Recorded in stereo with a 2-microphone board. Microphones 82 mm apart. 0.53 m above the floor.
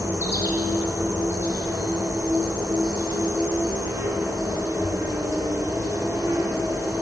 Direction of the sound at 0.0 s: 45° right (ahead or behind).